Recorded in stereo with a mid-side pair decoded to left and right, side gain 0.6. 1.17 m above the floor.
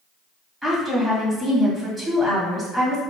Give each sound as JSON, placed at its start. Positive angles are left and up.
{"t": 0.6, "sound": "a woman speaking", "azimuth_deg": -5, "distance_m": 1.9}